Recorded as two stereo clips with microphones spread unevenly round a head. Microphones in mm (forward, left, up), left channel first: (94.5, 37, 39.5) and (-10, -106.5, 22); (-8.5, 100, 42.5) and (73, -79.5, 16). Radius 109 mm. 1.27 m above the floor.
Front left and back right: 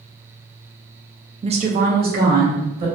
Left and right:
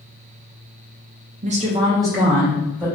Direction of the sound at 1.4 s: 80° right.